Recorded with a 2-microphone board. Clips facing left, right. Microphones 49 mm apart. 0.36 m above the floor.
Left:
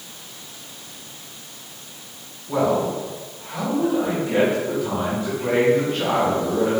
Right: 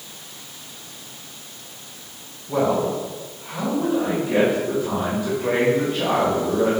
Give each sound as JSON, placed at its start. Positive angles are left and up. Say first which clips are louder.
{"t": 2.5, "sound": "a man speaking", "louder": "even", "side_deg": 35, "distance_m": 2.0}